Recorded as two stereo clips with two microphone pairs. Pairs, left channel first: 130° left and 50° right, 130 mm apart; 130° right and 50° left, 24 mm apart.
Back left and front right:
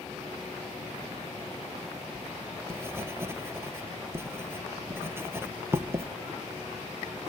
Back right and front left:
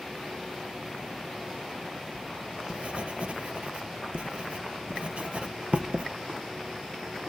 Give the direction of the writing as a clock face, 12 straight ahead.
11 o'clock.